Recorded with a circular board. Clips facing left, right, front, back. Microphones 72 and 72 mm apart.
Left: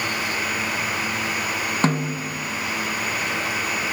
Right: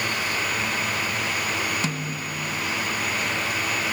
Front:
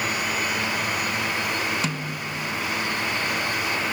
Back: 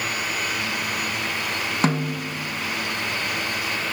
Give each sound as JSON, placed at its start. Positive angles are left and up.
{"t": 1.8, "sound": "a snare drum", "azimuth_deg": 135, "distance_m": 1.3}